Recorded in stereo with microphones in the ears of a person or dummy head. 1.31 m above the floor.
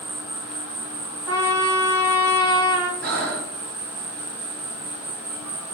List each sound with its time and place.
0.0 s an insect: 15° right (ahead or behind), 1.4 m
1.3 s a trumpet: 20° right (ahead or behind), 2.5 m
3.0 s breathing: 45° right (ahead or behind), 0.8 m